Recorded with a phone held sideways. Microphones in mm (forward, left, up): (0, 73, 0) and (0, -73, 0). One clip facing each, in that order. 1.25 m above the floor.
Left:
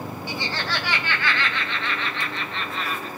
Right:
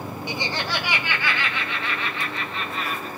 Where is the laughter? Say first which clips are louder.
Right 2 dB; 20° right (ahead or behind), 1.0 m; by 3.1 s 5° right (ahead or behind), 2.5 m.